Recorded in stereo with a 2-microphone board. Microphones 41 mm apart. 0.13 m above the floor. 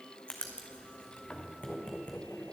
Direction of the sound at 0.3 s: 25° left (ahead or behind).